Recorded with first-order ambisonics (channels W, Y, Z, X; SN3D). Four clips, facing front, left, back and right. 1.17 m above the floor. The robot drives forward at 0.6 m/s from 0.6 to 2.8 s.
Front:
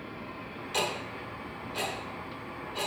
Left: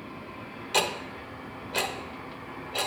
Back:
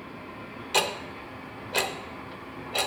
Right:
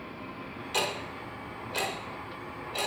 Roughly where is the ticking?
Behind left.